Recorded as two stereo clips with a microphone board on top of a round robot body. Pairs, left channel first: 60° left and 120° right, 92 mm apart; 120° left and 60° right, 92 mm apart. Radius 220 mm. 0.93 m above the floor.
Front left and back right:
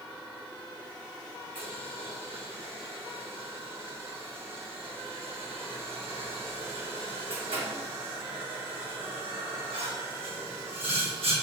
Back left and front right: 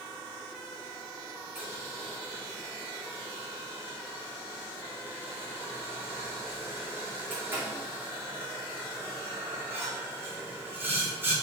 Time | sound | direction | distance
1.6 | boiling | 130° right | 5 m